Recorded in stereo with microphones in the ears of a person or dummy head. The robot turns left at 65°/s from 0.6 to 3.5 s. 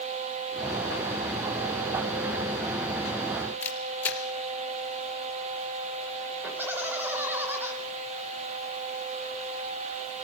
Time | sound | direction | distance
3.6 | a camera shutter | 10° left (ahead or behind) | 3 m
6.4 | laughter | 10° right (ahead or behind) | 5 m